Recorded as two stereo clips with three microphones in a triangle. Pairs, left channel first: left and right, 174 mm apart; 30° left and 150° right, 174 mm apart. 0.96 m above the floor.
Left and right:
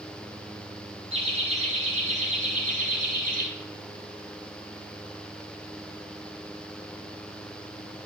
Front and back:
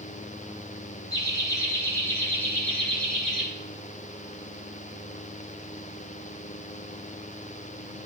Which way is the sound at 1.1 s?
40° right.